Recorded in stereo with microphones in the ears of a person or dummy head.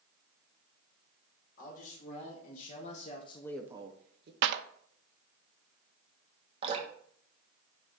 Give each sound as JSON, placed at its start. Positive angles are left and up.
{"t": 1.6, "sound": "a man speaking", "side_deg": 55, "distance_m": 2.5}
{"t": 4.4, "sound": "a clap", "side_deg": -65, "distance_m": 0.7}
{"t": 6.6, "sound": "dripping", "side_deg": -30, "distance_m": 1.5}